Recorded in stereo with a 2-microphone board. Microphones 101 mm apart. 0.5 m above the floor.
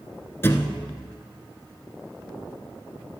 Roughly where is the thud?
Left.